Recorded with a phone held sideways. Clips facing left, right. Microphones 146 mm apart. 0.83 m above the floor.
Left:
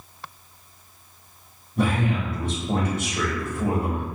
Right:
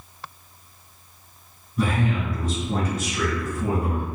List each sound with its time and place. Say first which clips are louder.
1.8 s a man speaking: left 1 dB; 55° left (ahead or behind), 1.2 m